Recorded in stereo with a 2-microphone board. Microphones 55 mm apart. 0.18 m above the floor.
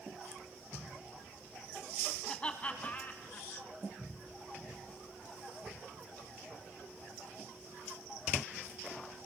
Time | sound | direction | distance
2.3 | laughter | 15° left (ahead or behind) | 1.1 m